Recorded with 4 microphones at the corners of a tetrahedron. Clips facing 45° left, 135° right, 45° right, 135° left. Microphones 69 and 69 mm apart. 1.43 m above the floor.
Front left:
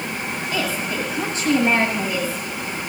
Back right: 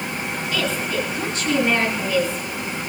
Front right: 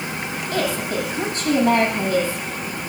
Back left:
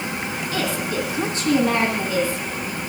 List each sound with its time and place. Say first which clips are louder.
0.5 s a woman speaking: back right 1 dB, front right 2 dB; 15° right, 9 m